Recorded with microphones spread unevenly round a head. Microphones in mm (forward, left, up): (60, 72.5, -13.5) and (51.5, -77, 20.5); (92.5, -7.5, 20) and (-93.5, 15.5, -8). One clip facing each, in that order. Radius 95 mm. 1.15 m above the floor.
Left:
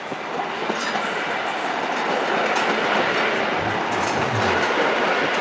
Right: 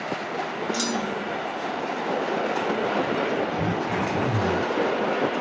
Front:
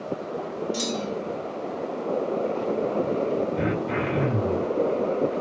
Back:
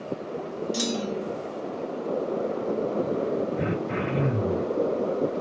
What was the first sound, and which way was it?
A clunk, 110° right.